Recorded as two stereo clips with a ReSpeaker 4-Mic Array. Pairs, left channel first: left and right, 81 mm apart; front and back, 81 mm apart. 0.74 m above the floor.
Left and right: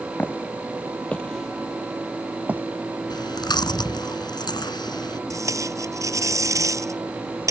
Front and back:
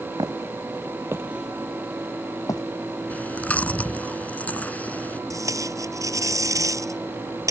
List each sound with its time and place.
0.2 s footsteps: 155° left; by 2.6 s 25° right
3.1 s chewing: 70° left
5.3 s tape being pulled: 135° right